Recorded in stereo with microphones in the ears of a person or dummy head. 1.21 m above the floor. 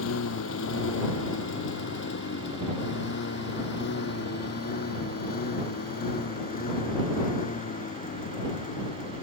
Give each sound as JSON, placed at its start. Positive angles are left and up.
{"t": 0.0, "sound": "a lawn mower", "side_deg": 75}